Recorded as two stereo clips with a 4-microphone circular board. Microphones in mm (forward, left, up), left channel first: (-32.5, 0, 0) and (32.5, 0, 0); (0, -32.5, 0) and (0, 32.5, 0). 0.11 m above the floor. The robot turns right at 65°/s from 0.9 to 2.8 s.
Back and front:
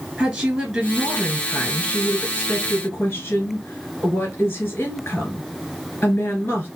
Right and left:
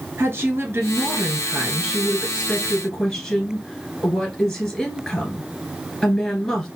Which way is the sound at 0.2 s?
85° left.